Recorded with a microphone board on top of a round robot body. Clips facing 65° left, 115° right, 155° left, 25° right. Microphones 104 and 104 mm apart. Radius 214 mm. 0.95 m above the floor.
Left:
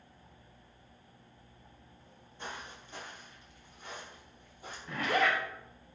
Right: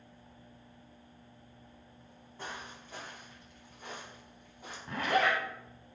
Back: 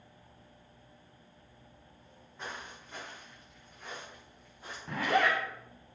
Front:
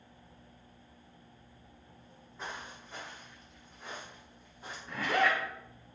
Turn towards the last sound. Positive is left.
turn(degrees=-170)